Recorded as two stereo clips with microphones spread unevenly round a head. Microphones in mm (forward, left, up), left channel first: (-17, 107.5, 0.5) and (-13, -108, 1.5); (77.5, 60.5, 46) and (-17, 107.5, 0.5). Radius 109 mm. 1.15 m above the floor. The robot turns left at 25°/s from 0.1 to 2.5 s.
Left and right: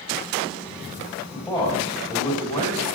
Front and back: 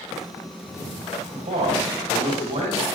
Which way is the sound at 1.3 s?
170° left.